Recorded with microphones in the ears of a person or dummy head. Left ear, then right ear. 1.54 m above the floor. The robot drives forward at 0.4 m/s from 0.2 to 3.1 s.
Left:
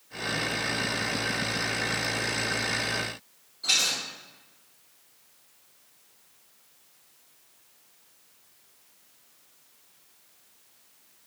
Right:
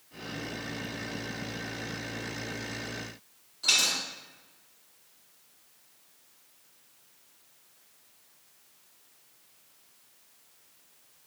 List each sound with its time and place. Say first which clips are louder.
3.6 s a dropped coin: even; 35° right (ahead or behind), 1.9 m